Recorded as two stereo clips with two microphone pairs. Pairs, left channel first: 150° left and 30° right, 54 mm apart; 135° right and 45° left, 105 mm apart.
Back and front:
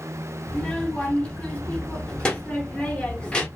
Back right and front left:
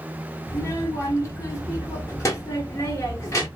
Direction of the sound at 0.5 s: 155° right.